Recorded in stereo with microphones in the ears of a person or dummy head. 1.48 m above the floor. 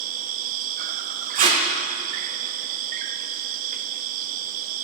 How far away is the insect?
About 0.8 m.